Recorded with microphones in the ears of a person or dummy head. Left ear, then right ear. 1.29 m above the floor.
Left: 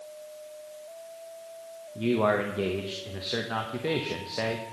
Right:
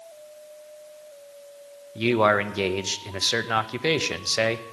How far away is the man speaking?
About 0.8 m.